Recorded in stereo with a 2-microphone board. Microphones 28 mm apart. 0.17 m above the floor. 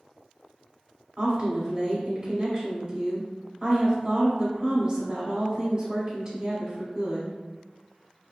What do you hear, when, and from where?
1.2 s a woman speaking: 25° right (ahead or behind), 1.1 m